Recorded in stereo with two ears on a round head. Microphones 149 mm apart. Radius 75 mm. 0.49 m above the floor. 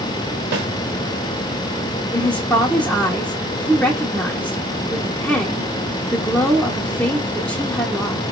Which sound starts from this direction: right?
A snare drum, at 0.5 s.